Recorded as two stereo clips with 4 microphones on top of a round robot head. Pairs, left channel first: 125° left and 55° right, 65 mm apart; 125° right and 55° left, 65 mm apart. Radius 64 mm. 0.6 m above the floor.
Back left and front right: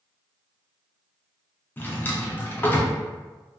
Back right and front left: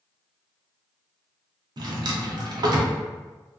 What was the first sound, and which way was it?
A drawer, 65° left.